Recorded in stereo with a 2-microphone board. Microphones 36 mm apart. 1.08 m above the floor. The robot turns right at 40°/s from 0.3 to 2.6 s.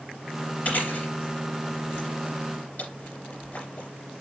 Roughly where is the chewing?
Left.